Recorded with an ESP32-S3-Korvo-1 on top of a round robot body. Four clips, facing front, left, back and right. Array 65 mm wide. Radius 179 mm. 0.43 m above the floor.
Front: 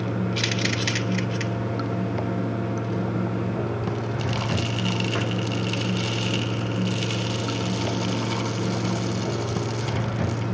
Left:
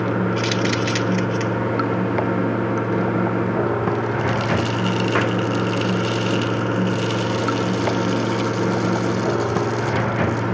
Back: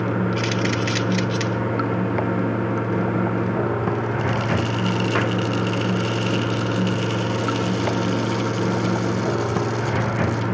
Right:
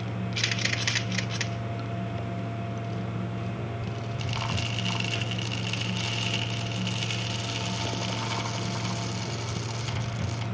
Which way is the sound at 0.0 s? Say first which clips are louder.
Left 13 dB, back 5 dB; 120° left.